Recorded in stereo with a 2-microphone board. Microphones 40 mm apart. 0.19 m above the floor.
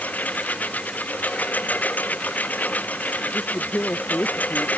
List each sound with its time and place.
0.0 s a lawn mower: 45° left (ahead or behind)
3.3 s a woman speaking: 55° left (ahead or behind)